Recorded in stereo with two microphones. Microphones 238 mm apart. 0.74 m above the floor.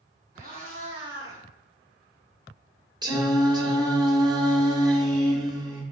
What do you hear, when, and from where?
0.3 s a cat meowing: 40° right (ahead or behind), 1.2 m; by 1.4 s 10° right (ahead or behind), 1.1 m
3.0 s singing: 15° right (ahead or behind), 0.6 m